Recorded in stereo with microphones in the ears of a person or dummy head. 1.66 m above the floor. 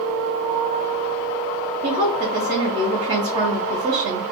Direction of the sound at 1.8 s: 35° right (ahead or behind).